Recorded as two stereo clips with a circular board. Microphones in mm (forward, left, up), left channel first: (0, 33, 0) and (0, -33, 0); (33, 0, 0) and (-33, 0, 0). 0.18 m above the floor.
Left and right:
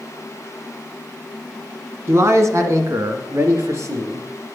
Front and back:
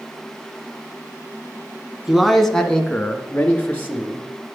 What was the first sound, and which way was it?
A man speaking, 95° right.